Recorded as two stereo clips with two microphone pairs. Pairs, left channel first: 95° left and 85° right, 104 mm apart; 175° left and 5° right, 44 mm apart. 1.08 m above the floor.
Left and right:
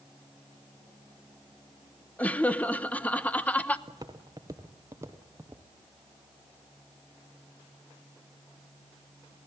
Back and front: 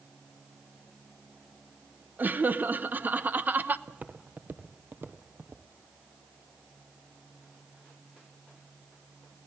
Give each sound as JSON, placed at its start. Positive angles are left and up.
{"t": 2.2, "sound": "laughter", "azimuth_deg": 25, "distance_m": 1.0}
{"t": 3.9, "sound": "footsteps", "azimuth_deg": -45, "distance_m": 1.5}